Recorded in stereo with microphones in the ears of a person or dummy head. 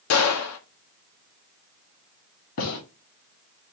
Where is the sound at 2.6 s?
70° left (ahead or behind), 2.5 m.